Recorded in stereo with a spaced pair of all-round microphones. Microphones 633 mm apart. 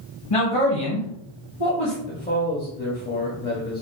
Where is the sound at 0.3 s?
55° left (ahead or behind), 1.5 m.